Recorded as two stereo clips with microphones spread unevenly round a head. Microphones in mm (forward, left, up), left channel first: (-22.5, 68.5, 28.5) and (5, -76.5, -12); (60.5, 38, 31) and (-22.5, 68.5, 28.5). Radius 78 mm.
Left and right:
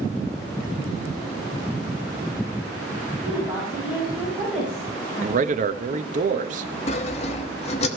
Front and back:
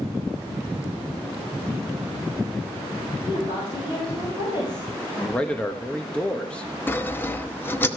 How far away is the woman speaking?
About 7 m.